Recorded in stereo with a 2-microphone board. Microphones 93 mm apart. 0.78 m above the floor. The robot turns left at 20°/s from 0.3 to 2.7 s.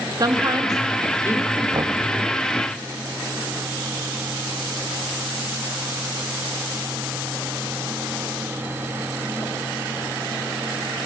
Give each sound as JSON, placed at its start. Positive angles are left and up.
{"t": 0.2, "sound": "a woman speaking", "side_deg": -45, "distance_m": 1.4}
{"t": 1.7, "sound": "knocking", "side_deg": -40, "distance_m": 0.8}